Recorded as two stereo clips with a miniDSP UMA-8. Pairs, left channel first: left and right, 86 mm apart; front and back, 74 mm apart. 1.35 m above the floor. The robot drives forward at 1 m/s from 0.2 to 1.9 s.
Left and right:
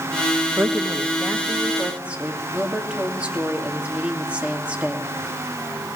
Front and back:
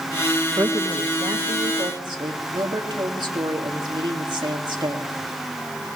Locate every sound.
0.6 s a woman speaking: 145° right, 1.1 m; by 5.1 s 165° right, 2.5 m